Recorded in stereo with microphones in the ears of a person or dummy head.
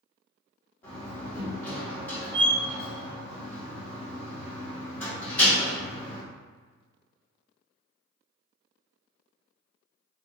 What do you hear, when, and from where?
0.8 s a door slam: 10° left (ahead or behind), 1.7 m